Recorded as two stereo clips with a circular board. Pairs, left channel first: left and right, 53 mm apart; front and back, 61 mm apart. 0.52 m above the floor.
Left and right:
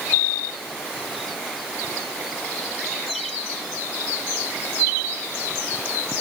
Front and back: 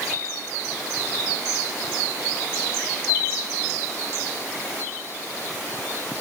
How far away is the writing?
I don't hear writing.